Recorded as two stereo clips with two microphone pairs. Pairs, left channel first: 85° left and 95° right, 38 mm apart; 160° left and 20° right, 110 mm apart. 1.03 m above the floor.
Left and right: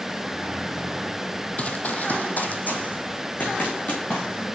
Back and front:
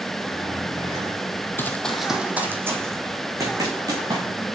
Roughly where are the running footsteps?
Left.